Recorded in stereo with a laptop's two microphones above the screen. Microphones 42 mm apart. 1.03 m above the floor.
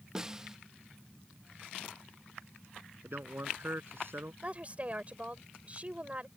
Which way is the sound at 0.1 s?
15° right (ahead or behind).